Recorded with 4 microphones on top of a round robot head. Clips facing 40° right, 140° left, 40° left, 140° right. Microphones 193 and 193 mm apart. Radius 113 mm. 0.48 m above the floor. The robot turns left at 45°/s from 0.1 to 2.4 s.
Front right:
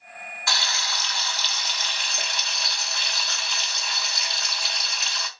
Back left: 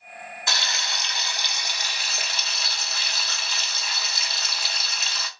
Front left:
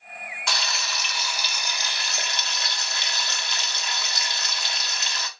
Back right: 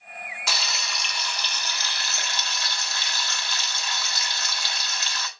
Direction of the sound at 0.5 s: 140° left.